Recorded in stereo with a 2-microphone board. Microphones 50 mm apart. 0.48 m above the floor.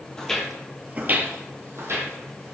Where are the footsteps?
15° left (ahead or behind), 0.7 m; by 2.5 s 65° right (ahead or behind), 1.4 m.